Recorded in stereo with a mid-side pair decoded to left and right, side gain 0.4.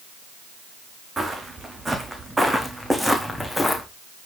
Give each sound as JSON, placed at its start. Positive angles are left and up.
{"t": 1.2, "sound": "footsteps", "azimuth_deg": -30, "distance_m": 4.5}